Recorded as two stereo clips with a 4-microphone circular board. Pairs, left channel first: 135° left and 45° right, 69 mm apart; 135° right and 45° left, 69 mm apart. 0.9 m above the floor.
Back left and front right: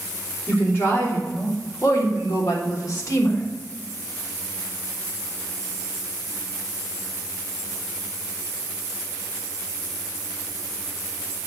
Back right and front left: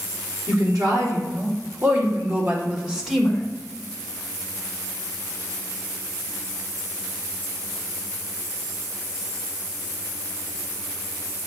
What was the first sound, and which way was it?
A woman speaking, 80° left.